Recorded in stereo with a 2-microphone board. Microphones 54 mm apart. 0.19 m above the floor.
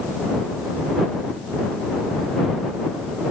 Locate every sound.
Only background noise.